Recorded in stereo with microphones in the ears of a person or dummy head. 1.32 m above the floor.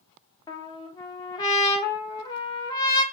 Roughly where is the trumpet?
Left.